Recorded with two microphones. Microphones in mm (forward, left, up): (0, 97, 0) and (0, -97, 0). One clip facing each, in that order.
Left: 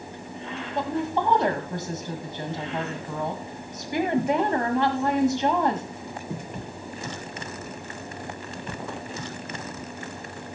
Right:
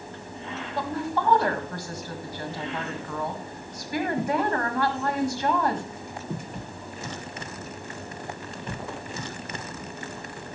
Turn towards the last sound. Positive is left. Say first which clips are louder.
# left 3 dB
turn(degrees=20)  # may be behind; listen again after turning